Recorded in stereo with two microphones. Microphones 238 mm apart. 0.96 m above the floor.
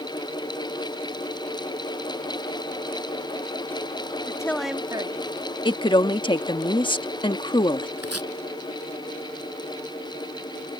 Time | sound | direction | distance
4.3 | a woman speaking | 20° left (ahead or behind) | ?
5.7 | a woman speaking | 20° left (ahead or behind) | ?
8.0 | chopping | 85° right | ?